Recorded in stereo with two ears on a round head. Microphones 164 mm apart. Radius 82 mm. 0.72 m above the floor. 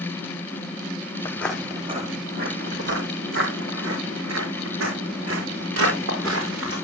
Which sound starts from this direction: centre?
Footsteps, at 1.2 s.